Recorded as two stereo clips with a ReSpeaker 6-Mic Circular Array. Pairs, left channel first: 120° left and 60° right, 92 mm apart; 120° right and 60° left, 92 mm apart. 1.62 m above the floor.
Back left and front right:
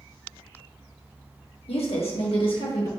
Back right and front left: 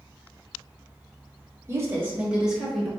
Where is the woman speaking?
120° left, 1.1 m; by 2.9 s 150° left, 1.4 m.